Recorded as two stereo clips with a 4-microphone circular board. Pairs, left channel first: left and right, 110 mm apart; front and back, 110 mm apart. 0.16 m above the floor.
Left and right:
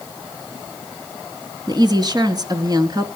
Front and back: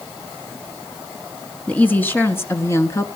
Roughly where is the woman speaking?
Right.